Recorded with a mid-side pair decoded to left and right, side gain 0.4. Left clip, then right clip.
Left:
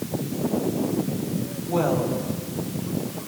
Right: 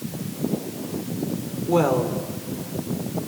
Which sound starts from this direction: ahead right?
A woman speaking, at 1.7 s.